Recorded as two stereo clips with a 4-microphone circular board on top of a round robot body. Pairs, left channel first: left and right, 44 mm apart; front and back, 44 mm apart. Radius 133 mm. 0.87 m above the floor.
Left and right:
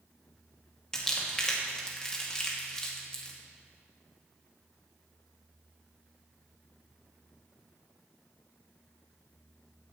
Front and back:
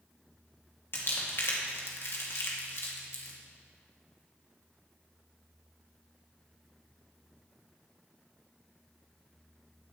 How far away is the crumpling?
About 2 m.